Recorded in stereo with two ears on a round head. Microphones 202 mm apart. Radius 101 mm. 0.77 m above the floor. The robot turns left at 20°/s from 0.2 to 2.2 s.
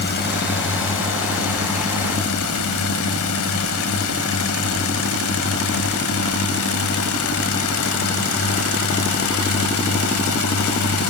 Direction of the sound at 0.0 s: 130° left.